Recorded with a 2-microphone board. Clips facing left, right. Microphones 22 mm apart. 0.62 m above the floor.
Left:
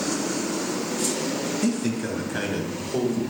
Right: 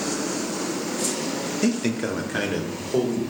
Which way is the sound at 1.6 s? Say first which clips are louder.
Right 4 dB; 30° right (ahead or behind).